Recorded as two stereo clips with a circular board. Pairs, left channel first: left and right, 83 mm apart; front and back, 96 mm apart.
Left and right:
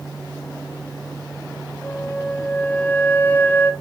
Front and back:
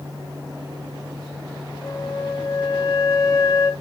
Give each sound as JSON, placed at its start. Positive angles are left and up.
{"t": 1.8, "sound": "a flute", "azimuth_deg": 25, "distance_m": 0.7}